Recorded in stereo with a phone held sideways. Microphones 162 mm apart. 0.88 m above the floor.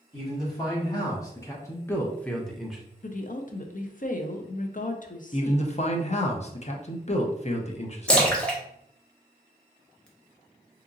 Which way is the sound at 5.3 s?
45° left (ahead or behind).